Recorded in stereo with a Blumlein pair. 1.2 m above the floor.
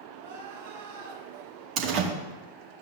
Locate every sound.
0.2 s crying: 60° right, 3.5 m
1.8 s a door slam: 35° right, 1.3 m